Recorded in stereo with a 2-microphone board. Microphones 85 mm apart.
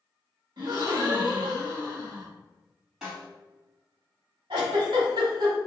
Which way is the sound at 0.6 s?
65° right (ahead or behind).